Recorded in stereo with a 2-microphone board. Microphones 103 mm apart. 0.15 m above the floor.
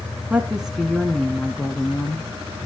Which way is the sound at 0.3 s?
10° right (ahead or behind).